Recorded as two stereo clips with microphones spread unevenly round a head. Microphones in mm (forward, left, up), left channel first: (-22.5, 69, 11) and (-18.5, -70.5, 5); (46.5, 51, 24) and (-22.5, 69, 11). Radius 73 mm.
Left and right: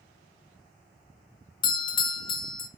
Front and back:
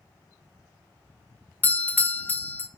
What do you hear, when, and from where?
1.6 s a doorbell: 50° left, 0.7 m